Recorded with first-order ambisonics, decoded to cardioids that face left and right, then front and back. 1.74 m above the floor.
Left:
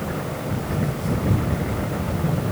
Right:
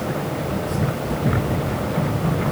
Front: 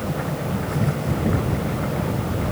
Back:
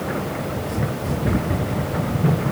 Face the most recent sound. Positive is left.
No sound to turn to.